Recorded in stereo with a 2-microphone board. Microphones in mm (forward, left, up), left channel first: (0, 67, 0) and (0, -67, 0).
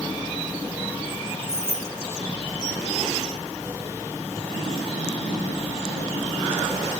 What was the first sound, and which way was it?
Keys jangling, 20° left (ahead or behind).